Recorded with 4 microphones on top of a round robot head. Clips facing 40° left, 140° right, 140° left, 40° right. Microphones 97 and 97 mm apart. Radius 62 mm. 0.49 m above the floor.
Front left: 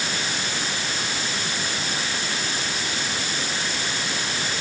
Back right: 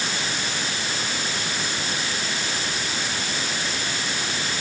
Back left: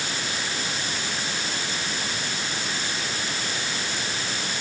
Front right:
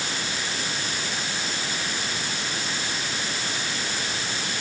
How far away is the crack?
I don't hear a crack.